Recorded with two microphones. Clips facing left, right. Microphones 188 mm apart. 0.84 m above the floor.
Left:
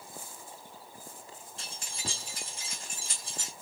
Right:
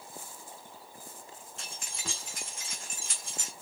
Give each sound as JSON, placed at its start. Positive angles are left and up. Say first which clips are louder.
{"t": 1.6, "sound": "keys jangling", "louder": "left 2 dB", "side_deg": 35, "distance_m": 1.9}